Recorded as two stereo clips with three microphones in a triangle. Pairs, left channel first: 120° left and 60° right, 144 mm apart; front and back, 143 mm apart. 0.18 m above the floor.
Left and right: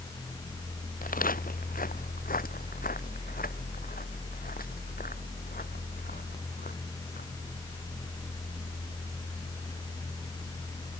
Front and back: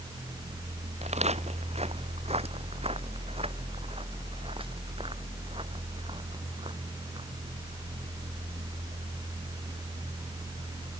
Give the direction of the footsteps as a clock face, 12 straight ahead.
7 o'clock.